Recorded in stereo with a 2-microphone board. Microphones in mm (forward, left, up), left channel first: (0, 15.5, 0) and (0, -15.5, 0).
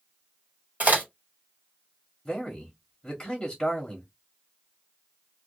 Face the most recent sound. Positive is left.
turn(degrees=20)  # may be behind; listen again after turning